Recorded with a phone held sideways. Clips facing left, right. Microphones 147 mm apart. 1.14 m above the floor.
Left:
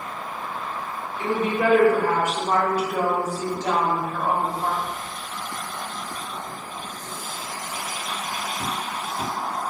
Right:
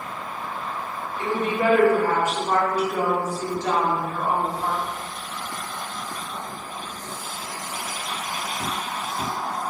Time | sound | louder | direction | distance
1.2 | a woman speaking | left 1 dB | 15° left (ahead or behind) | 2.0 m